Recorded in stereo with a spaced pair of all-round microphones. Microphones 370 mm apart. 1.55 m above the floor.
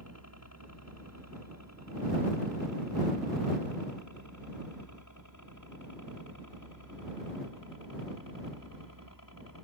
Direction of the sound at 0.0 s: 45° left (ahead or behind).